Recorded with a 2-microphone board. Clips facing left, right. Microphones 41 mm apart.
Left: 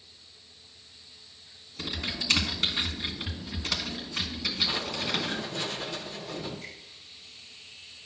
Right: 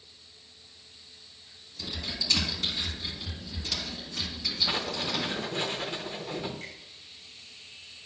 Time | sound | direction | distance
1.8 | typing on a keyboard | 50° left (ahead or behind) | 1.2 m
4.7 | writing | 30° right (ahead or behind) | 1.0 m
6.6 | a finger snap | 70° right (ahead or behind) | 3.5 m